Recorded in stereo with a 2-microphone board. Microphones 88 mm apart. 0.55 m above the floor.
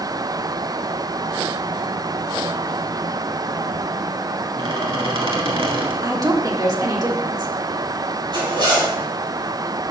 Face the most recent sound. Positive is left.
turn(degrees=-60)  # may be behind; listen again after turning